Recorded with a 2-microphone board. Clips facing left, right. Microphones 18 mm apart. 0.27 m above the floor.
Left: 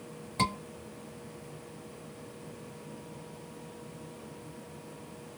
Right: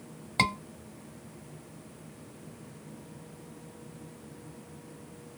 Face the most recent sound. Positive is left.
turn(degrees=-35)  # may be behind; listen again after turning